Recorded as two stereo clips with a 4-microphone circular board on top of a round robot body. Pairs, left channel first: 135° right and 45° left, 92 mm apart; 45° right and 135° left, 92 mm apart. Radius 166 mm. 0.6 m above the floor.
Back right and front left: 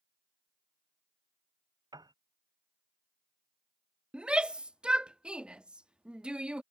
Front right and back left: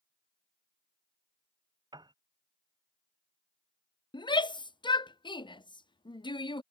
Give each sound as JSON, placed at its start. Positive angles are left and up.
{"t": 1.9, "sound": "a piano", "azimuth_deg": 95}
{"t": 4.1, "sound": "a shout", "azimuth_deg": -35}